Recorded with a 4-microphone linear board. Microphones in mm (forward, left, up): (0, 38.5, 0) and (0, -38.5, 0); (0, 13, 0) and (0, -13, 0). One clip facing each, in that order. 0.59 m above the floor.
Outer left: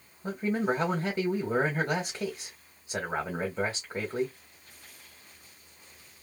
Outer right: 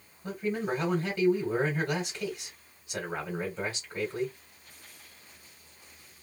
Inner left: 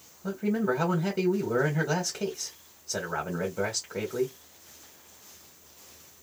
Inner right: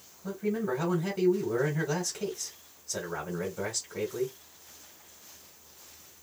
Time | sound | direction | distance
0.2 | a man speaking | 30° left (ahead or behind) | 1.8 m